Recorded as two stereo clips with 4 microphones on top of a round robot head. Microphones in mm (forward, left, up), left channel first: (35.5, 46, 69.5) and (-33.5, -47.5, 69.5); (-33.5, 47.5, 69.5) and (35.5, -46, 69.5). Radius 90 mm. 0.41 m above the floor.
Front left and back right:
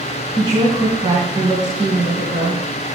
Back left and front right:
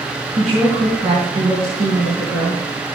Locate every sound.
0.4 s a woman speaking: 80° right, 4 m